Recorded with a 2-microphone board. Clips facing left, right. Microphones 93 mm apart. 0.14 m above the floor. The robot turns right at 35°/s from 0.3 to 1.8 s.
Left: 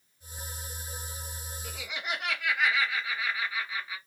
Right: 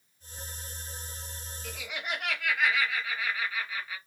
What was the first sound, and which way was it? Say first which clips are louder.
Laughter: even; 15° left (ahead or behind).